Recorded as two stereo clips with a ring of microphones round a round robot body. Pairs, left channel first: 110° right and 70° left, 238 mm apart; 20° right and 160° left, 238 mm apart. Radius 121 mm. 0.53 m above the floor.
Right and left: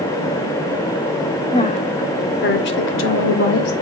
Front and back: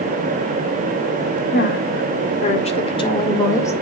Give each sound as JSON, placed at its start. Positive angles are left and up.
{"t": 1.5, "sound": "a woman speaking", "azimuth_deg": -50, "distance_m": 1.7}